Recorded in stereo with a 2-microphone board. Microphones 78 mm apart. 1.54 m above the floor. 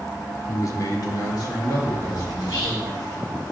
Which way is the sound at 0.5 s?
40° left (ahead or behind).